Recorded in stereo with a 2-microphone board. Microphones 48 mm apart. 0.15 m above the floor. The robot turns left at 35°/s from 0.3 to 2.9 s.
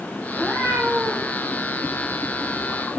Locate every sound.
0.4 s a cat meowing: 15° right, 3.5 m; by 1.3 s 50° right, 3.5 m